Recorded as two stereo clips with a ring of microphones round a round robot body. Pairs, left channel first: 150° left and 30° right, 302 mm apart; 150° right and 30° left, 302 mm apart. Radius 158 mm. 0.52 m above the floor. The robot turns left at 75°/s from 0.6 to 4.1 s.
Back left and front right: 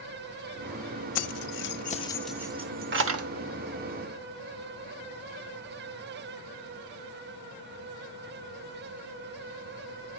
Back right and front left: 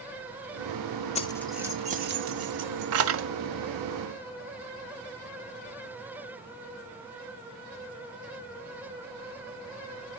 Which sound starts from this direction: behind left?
Keys jangling, at 1.1 s.